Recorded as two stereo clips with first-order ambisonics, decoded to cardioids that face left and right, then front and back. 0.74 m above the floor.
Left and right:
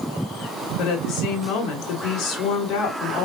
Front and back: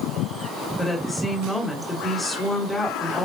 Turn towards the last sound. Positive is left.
turn(degrees=80)